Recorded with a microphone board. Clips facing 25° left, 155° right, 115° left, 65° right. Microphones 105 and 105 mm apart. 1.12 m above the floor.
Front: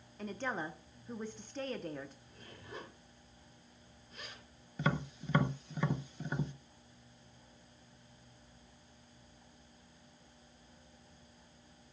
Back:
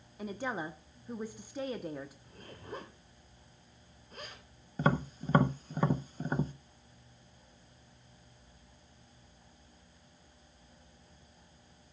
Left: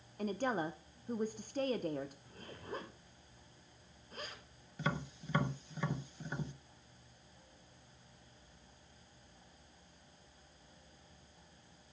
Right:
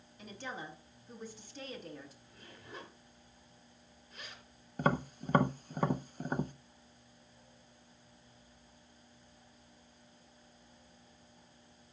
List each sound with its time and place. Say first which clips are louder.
0.2 s a woman speaking: back 2 dB, left 9 dB; 125° left, 0.8 m
2.2 s a zipper: back 6 dB, left 6 dB; 160° left, 3.5 m
4.8 s tapping: back 5 dB, right 7 dB; 110° right, 0.6 m